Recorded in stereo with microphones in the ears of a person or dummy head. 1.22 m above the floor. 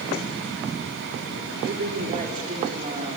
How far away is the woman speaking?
About 3.5 m.